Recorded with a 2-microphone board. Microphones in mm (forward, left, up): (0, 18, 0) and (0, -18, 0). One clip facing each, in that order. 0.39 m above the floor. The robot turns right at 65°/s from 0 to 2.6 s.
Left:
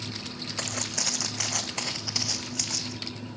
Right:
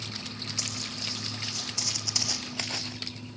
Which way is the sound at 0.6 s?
40° left (ahead or behind).